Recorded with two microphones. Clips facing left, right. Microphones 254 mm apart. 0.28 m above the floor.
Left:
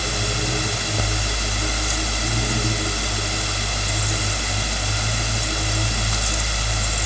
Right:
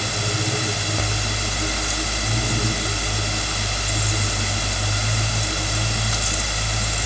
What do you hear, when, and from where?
Only background noise.